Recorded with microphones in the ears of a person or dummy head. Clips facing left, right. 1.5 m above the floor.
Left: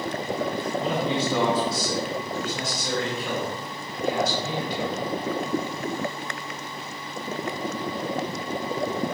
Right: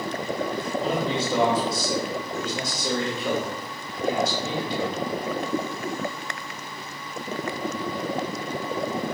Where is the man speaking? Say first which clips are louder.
Even; 80° right, 2.5 m.